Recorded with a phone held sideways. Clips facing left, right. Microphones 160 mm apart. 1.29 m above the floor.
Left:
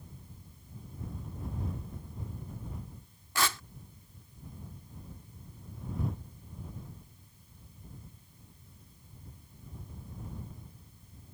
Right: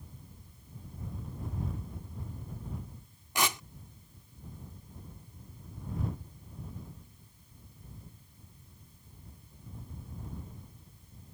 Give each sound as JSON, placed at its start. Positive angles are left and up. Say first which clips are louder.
{"t": 3.4, "sound": "tearing paper", "louder": "right 1 dB", "side_deg": -20}